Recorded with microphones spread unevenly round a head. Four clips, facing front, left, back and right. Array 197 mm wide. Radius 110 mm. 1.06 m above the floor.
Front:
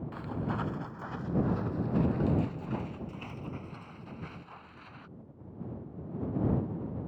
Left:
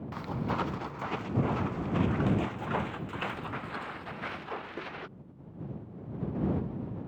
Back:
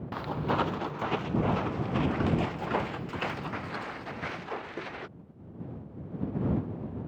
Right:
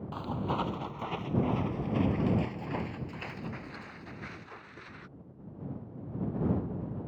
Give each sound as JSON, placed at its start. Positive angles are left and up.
{"t": 0.1, "sound": "footsteps", "azimuth_deg": 180}